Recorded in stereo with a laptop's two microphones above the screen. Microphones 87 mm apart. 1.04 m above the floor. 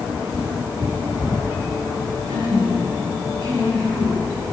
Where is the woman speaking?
75° right (ahead or behind), 10 m.